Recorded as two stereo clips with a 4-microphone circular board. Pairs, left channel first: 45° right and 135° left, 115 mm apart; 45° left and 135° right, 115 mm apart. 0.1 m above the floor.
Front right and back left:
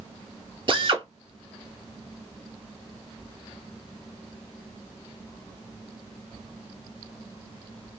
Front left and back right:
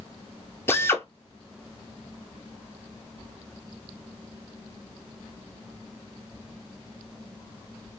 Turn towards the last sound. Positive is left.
turn(degrees=110)